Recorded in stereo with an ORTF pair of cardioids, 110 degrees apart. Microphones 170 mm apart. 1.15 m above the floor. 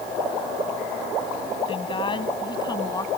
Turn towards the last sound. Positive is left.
turn(degrees=20)